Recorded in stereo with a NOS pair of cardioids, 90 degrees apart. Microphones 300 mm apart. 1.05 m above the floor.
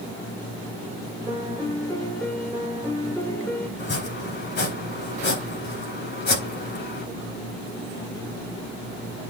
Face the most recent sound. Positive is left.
turn(degrees=40)